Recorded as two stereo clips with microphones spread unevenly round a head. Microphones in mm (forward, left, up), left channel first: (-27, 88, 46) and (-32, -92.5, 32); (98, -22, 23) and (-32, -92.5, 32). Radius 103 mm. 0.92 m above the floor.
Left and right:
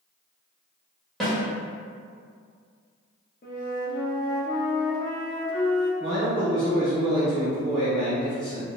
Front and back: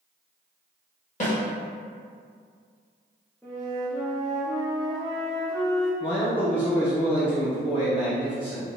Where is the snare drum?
Straight ahead, 1.3 m.